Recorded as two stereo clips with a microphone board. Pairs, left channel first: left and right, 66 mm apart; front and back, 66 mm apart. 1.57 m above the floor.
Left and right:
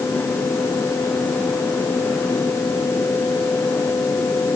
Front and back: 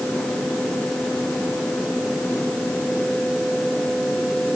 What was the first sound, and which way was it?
Only background noise.